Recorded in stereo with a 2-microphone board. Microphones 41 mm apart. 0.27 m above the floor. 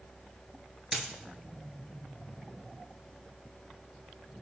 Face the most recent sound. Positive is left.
turn(degrees=-10)  # may be behind; listen again after turning